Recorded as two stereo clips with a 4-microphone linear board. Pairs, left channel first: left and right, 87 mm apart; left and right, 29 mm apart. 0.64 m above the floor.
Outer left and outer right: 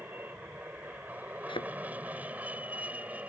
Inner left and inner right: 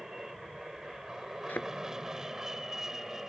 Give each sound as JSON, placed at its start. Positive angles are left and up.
{"t": 0.0, "sound": "an aircraft", "side_deg": -20}
{"t": 1.5, "sound": "a thud", "side_deg": 80}